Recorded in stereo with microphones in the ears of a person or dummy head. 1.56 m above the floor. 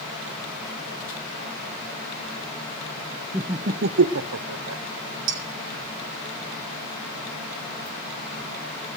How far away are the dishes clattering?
About 4.5 m.